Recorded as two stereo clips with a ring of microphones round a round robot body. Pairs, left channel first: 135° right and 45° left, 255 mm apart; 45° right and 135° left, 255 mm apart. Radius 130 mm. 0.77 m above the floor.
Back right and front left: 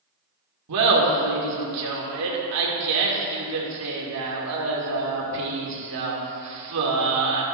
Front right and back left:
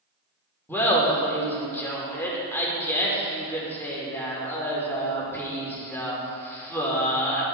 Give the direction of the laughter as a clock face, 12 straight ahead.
11 o'clock.